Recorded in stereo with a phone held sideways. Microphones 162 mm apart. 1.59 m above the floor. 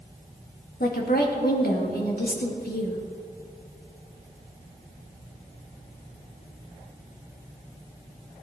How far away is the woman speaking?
About 2 m.